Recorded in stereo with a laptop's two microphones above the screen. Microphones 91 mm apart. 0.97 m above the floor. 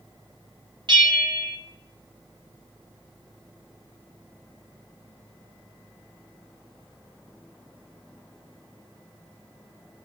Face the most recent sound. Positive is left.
turn(degrees=-60)  # may be behind; listen again after turning